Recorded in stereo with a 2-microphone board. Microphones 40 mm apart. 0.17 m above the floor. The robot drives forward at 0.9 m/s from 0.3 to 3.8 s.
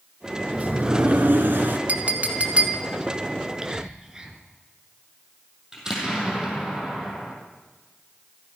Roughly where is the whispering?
Centre.